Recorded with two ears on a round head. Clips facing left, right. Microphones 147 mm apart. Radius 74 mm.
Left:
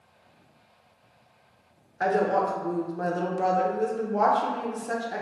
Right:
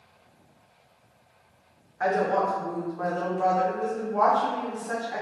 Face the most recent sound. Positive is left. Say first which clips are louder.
# left 1 dB
turn(degrees=35)  # may be behind; listen again after turning